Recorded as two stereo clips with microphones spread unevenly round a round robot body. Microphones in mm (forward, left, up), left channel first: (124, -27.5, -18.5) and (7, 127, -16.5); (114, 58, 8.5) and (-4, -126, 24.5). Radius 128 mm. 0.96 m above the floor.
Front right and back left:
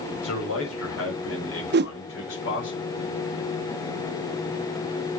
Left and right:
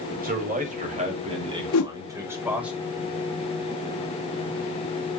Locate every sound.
0.2 s a man speaking: 75° right, 5.5 m; by 2.7 s 35° right, 5 m
1.7 s a whoosh: 95° left, 0.7 m